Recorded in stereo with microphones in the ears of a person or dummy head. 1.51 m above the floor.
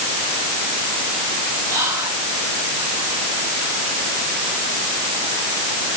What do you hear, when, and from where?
1.7 s whispering: 20° right (ahead or behind), 8.5 m